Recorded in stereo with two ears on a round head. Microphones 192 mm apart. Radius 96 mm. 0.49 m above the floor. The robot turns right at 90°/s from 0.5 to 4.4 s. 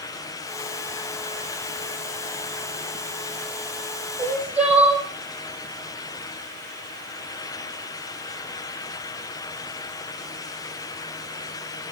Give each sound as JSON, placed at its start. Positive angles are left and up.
{"t": 4.2, "sound": "crying", "side_deg": -25, "distance_m": 4.5}